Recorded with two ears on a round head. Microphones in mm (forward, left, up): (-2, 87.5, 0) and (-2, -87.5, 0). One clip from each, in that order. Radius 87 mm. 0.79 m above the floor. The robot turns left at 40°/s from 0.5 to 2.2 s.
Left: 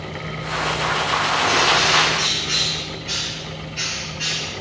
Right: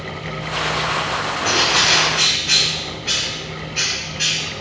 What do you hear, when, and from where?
1.4 s a bird: 70° right, 5 m; by 4.5 s 100° right, 5 m